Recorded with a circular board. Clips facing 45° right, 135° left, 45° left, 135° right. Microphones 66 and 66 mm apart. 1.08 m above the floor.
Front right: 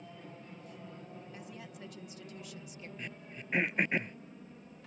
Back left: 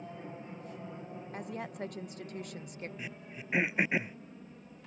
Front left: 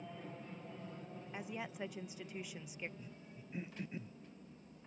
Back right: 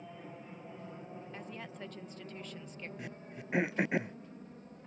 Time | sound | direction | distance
0.0 | an aircraft | 150° left | ?
1.3 | a woman speaking | 120° left | ?
3.0 | throat clearing | 140° right | ?